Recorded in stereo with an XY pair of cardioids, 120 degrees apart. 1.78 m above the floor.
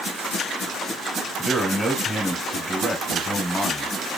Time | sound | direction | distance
1.4 | a man speaking | 5° left | 1.2 m